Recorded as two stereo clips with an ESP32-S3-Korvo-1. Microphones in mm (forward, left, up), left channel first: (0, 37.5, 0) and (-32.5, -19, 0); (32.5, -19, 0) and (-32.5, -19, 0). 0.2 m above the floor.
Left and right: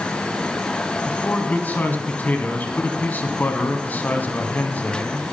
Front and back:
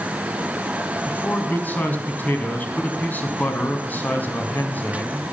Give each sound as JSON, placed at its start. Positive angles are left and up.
{"t": 1.1, "sound": "a man speaking", "azimuth_deg": 30, "distance_m": 1.5}